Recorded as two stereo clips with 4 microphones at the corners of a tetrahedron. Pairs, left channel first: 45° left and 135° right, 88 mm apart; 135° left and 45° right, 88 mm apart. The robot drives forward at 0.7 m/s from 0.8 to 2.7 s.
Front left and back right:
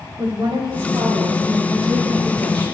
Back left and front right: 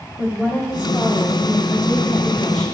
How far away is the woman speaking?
About 2.5 m.